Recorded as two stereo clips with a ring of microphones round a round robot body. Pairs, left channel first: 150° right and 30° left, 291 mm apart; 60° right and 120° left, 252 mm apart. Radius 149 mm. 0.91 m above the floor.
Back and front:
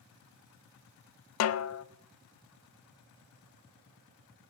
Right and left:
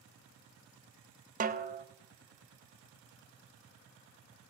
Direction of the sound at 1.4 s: Straight behind.